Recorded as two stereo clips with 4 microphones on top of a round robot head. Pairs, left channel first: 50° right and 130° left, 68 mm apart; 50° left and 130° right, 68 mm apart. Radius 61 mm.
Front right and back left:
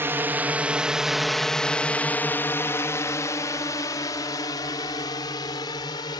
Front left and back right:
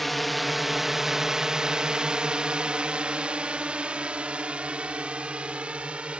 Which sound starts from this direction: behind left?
A drone, at 0.0 s.